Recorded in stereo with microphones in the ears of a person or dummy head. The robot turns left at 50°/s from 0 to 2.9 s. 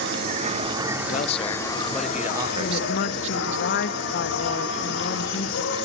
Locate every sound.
0.0 s an insect: 125° right, 4 m; by 5.8 s 90° left, 4 m
1.1 s a man speaking: 45° left, 1.0 m; by 3.6 s 45° right, 1.0 m
2.6 s a woman speaking: 55° left (ahead or behind), 1.5 m; by 5.8 s 70° left (ahead or behind), 1.5 m